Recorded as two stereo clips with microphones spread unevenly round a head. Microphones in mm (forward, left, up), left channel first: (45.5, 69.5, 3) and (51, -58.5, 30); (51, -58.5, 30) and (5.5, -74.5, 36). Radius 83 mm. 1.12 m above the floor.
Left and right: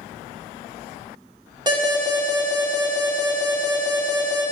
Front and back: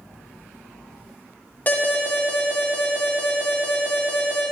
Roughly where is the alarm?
Ahead right.